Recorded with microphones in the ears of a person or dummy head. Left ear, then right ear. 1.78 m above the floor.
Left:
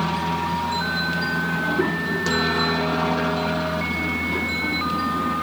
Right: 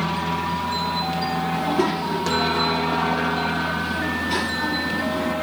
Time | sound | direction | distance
0.0 | a helicopter | centre (ahead or behind) | ?
1.5 | a child speaking | 60° right (ahead or behind) | ?